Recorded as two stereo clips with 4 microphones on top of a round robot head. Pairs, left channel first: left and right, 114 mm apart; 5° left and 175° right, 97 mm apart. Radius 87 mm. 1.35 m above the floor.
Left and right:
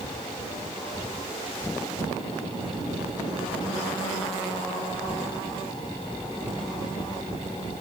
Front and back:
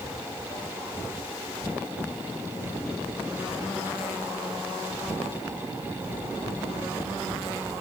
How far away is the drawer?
No drawer in this recording.